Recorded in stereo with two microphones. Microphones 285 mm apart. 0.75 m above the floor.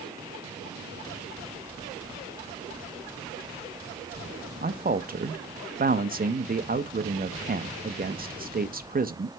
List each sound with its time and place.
4.6 s a man speaking: 30° right (ahead or behind), 0.5 m